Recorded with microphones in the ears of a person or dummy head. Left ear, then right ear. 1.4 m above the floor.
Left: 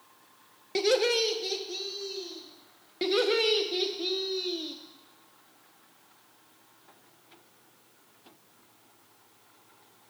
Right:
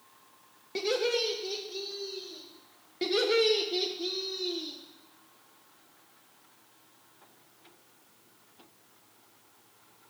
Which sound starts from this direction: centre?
Laughter, at 3.0 s.